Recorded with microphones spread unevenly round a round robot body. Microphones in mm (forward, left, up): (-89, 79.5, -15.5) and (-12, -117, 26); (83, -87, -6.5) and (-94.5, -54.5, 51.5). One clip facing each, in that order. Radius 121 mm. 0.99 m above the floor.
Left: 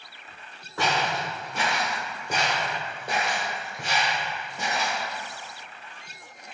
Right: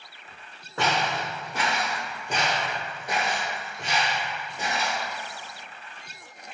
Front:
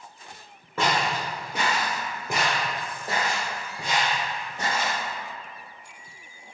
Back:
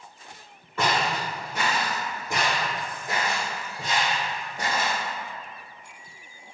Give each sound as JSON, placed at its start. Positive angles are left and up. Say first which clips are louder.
{"t": 0.8, "sound": "footsteps", "louder": "even, even", "azimuth_deg": -10, "distance_m": 1.6}